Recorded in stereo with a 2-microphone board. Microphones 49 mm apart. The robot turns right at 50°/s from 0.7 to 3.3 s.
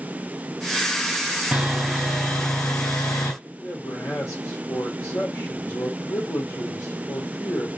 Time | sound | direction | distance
1.5 | sawing | 15° right | 3 m
3.4 | a man speaking | 80° left | 3.5 m